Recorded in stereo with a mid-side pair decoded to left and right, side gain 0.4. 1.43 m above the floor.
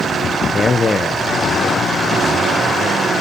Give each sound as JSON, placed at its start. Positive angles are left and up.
{"t": 0.5, "sound": "a man speaking", "azimuth_deg": 35, "distance_m": 0.6}